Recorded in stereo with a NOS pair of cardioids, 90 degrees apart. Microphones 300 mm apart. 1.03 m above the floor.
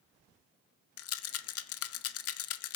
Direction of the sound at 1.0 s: 55° left.